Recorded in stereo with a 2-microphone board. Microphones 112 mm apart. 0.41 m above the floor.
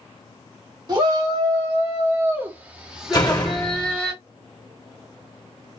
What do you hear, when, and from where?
0.9 s a shout: 45° right (ahead or behind), 2 m; by 4.1 s 15° left (ahead or behind), 1.6 m
3.1 s a door slam: 35° left (ahead or behind), 1.1 m